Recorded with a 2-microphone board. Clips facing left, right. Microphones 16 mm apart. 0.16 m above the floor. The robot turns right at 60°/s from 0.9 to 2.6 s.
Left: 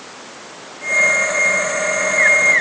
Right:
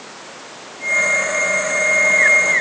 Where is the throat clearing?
I don't hear throat clearing.